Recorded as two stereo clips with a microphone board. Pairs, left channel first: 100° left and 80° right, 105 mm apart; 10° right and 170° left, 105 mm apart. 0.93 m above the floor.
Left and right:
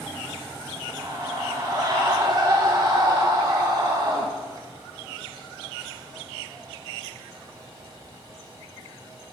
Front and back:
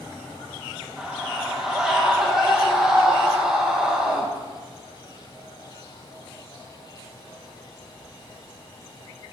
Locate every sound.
1.0 s a scream: 110° right, 1.2 m